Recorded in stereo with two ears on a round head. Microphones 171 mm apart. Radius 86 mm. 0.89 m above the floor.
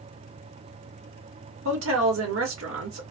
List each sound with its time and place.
1.6 s a woman speaking: 75° right (ahead or behind), 1.8 m